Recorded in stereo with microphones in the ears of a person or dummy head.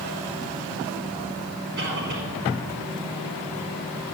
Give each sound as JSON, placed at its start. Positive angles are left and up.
{"t": 1.8, "sound": "a cough", "side_deg": -65, "distance_m": 5.5}